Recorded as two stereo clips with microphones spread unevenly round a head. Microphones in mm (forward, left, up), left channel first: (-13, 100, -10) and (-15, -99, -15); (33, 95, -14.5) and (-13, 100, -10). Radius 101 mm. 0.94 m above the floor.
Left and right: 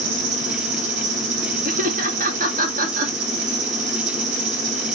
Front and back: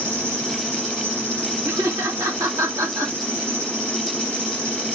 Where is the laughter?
135° right, 2 m.